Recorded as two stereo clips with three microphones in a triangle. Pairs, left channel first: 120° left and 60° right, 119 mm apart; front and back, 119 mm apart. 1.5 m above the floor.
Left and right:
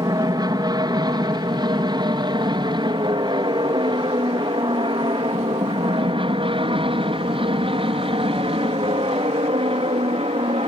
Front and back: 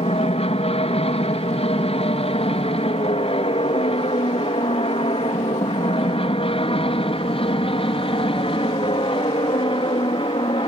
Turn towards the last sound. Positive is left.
turn(degrees=-35)